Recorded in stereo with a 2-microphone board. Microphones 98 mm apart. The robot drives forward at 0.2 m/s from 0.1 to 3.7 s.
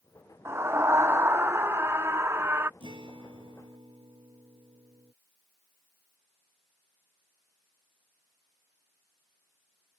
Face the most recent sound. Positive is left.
turn(degrees=-55)  # may be behind; listen again after turning